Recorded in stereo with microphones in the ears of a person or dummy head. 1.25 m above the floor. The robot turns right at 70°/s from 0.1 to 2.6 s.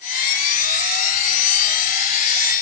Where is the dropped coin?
I don't hear a dropped coin.